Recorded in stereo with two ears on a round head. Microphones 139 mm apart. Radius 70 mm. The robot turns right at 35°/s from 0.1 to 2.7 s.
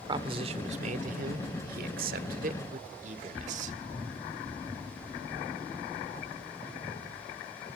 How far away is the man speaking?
About 1.6 m.